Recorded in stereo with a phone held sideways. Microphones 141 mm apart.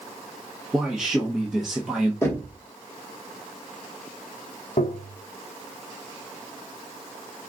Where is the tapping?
80° left, 0.7 m.